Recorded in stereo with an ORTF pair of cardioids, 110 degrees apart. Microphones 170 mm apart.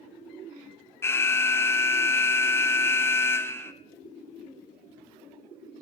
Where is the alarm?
15° left, 0.6 m.